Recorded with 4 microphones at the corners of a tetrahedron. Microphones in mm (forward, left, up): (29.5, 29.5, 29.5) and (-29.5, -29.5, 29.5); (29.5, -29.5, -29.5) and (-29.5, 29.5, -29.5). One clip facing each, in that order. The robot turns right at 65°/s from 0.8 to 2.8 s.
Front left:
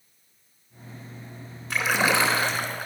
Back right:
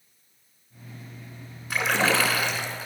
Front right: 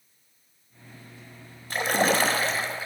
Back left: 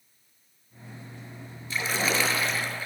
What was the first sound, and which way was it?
A splash, 50° right.